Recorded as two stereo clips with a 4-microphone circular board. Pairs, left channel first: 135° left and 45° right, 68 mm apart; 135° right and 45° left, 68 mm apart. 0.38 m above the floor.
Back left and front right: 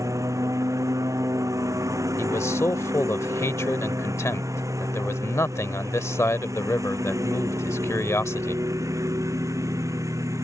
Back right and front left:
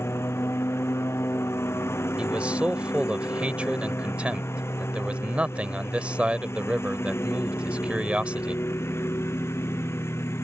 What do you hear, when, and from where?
0.0 s a lawn mower: 85° right
2.2 s a man speaking: 110° left